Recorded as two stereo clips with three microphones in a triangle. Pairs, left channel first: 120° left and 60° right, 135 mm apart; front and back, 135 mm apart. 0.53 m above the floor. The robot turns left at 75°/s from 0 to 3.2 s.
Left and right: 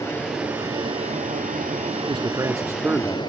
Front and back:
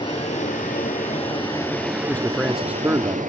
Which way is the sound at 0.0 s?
55° left.